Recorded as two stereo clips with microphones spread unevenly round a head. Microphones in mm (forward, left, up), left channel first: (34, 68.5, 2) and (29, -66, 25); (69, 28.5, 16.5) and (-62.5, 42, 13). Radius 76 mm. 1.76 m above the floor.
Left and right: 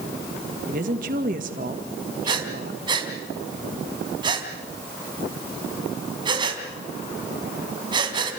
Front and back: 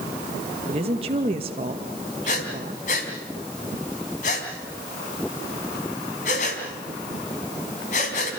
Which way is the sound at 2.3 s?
45° right.